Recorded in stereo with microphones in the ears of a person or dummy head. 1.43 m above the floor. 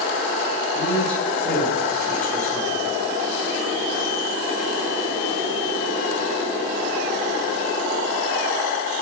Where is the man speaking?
10° left (ahead or behind), 7 m.